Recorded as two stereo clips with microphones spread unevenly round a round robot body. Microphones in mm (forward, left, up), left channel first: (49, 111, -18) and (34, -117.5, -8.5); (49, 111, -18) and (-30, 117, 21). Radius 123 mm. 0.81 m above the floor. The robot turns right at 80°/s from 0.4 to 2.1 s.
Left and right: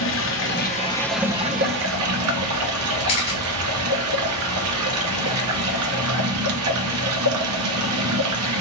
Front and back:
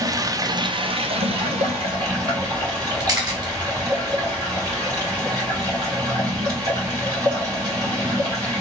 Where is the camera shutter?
155° left, 1.7 m.